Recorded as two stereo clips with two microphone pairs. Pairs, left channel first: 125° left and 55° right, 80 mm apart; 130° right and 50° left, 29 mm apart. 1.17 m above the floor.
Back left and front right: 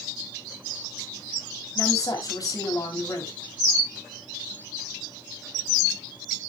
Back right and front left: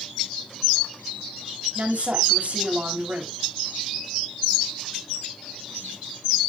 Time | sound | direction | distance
1.8 | a woman speaking | 85° left | 3.5 m